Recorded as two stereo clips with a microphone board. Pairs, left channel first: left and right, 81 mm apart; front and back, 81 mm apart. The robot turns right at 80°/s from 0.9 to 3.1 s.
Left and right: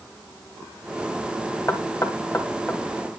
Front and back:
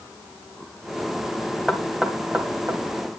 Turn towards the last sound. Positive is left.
turn(degrees=-165)